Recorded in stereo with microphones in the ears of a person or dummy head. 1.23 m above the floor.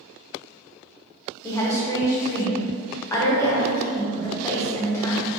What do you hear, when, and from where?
1.4 s a woman speaking: 20° left (ahead or behind), 0.7 m